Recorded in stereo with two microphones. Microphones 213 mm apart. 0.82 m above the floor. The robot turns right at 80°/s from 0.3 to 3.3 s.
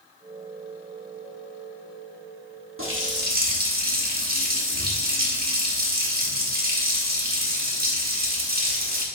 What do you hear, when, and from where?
2.8 s a running tap: 90° right, 1.0 m; by 9.1 s 50° right, 1.0 m